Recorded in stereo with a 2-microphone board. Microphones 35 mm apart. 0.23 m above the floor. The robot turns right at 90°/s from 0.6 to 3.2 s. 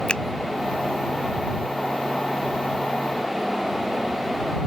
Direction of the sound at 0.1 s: 30° left (ahead or behind).